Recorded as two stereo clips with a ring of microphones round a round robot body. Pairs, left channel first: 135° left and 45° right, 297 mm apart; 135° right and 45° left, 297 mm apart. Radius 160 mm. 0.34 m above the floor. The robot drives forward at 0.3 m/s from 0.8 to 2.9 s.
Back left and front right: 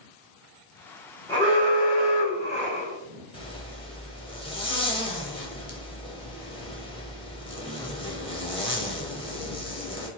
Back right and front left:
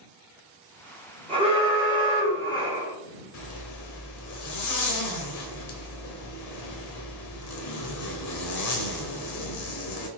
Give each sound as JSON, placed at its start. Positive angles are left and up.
{"t": 1.3, "sound": "an alarm", "azimuth_deg": 80, "distance_m": 1.8}
{"t": 3.3, "sound": "a zipper", "azimuth_deg": -155, "distance_m": 0.8}